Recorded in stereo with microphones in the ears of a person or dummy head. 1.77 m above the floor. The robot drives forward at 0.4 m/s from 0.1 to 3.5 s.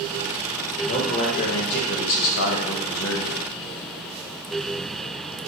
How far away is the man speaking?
About 1.0 m.